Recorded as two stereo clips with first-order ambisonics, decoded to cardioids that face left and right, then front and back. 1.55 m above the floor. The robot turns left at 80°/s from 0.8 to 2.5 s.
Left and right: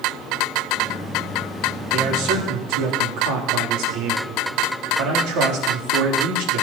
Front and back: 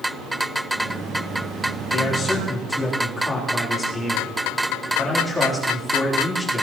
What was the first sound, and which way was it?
A man speaking, 40° right.